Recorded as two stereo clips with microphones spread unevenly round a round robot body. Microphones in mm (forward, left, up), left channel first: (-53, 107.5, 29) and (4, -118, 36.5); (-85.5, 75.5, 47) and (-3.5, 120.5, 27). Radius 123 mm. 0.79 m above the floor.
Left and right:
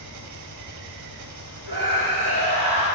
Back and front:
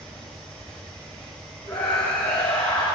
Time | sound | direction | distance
0.0 | an engine running | 70° right | 3.5 m
1.6 | a scream | 95° right | 6.5 m